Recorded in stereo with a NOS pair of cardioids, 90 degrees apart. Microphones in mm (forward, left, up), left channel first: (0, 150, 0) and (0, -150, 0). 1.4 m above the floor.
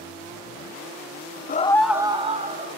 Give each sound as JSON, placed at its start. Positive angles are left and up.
{"t": 1.5, "sound": "a scream", "azimuth_deg": 30, "distance_m": 0.6}